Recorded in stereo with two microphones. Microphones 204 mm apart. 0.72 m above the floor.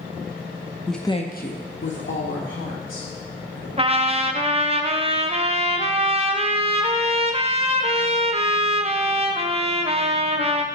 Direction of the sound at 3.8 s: 30° right (ahead or behind).